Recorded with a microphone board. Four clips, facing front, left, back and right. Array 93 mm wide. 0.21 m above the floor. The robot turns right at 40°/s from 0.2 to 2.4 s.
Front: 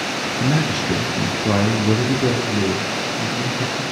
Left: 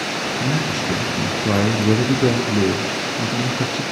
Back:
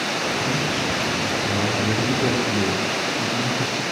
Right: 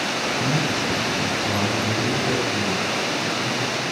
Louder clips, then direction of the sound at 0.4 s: Left 2 dB, front 3 dB; 5° left.